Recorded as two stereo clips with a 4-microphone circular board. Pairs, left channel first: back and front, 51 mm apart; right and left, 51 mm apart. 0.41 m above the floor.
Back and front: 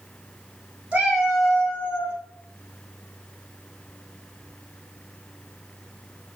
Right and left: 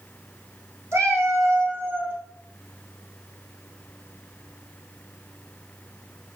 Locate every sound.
0.9 s a cat meowing: 65° left, 1.2 m; by 2.2 s 145° left, 1.0 m